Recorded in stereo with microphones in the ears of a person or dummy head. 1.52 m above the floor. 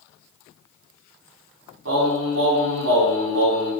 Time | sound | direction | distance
1.9 | singing | 80° right | 6 m